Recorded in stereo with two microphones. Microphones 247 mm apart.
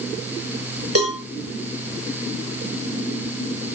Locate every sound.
0.9 s a cowbell: 70° right (ahead or behind), 7.5 m